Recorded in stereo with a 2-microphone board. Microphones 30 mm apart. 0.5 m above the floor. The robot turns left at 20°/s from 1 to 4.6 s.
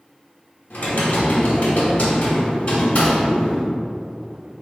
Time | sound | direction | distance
0.7 | typing on a keyboard | 85° left | 1.2 m